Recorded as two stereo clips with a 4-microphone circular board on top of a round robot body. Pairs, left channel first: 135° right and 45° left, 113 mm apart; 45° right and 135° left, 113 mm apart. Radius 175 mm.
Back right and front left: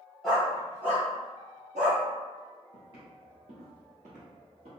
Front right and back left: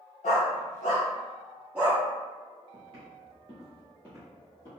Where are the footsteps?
105° left, 1.1 m; by 4.7 s 15° left, 1.7 m.